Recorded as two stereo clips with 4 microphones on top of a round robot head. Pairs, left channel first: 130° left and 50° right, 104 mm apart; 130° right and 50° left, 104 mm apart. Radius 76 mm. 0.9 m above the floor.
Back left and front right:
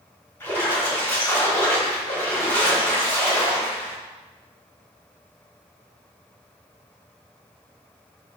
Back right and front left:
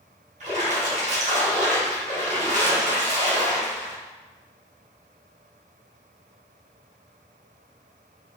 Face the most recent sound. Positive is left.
turn(degrees=60)